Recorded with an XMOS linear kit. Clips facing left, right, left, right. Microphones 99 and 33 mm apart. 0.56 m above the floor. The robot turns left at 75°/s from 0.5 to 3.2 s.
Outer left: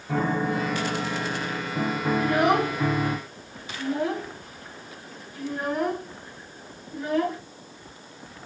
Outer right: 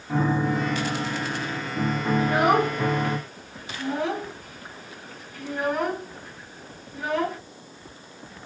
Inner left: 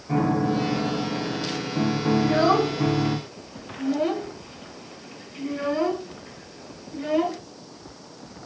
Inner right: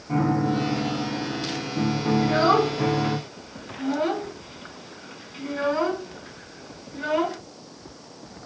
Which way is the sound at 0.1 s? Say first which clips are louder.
Outer right 1 dB, even; 135° left.